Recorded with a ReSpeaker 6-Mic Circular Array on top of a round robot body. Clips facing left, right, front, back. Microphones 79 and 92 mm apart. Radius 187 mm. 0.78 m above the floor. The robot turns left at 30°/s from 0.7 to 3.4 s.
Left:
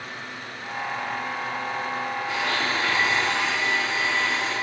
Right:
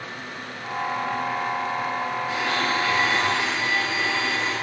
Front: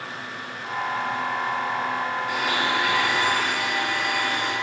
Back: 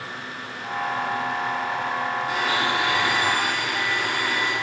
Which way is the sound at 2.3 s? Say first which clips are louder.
Right 1 dB, back 1 dB; 130° left.